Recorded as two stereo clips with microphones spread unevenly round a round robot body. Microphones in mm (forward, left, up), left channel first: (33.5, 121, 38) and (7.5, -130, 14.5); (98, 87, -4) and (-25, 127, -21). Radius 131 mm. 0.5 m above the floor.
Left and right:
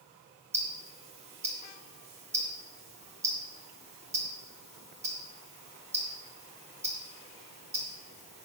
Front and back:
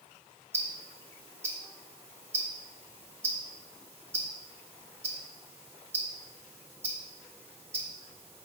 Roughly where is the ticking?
Behind right.